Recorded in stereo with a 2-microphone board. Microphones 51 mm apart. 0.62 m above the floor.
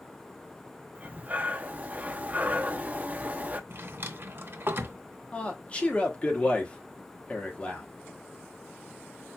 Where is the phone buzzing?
No phone buzzing in this recording.